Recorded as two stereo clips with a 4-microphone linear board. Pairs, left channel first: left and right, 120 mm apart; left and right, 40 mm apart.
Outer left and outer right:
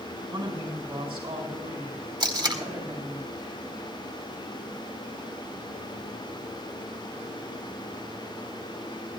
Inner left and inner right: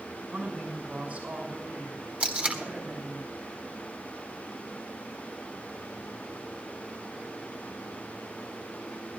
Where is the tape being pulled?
35° right (ahead or behind), 1.5 m.